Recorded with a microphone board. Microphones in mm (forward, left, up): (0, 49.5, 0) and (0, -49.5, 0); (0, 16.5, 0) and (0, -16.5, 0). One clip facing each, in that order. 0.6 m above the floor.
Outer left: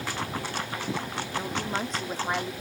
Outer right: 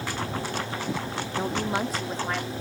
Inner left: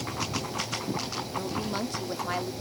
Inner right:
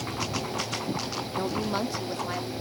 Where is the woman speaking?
35° right (ahead or behind); by 2.5 s 20° left (ahead or behind).